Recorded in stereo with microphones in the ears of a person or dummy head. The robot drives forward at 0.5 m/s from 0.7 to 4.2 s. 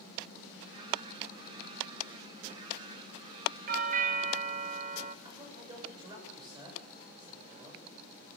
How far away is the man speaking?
About 7.5 m.